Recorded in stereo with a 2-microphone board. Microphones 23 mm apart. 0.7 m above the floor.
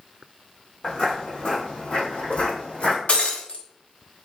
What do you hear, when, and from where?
0.8 s footsteps: 40° left (ahead or behind), 1.4 m; by 3.0 s 75° left (ahead or behind), 2 m
3.1 s breaking glass: 75° left (ahead or behind), 1.0 m